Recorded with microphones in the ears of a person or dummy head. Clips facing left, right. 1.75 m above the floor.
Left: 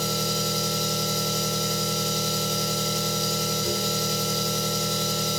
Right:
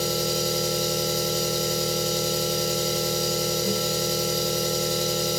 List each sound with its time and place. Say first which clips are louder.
0.0 s an engine running: right 3 dB; centre (ahead or behind), 1.1 m